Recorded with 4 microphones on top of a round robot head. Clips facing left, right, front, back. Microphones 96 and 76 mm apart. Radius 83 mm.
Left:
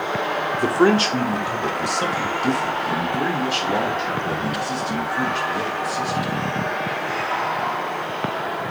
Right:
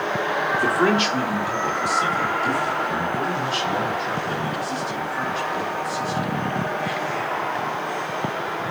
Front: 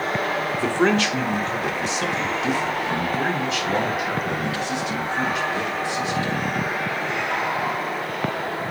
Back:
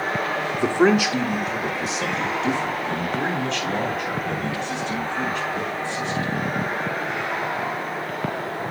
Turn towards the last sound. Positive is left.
turn(degrees=80)